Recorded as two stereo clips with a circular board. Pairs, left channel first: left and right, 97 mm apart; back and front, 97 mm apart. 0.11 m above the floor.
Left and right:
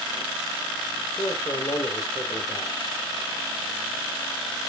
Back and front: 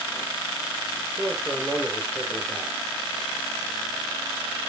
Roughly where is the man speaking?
Left.